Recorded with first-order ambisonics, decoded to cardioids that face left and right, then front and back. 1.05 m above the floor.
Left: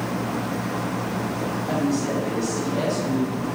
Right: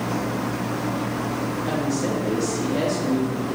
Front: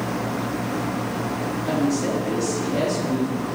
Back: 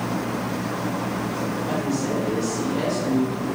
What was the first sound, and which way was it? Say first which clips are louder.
A woman speaking: left 1 dB, front 5 dB; 45° right.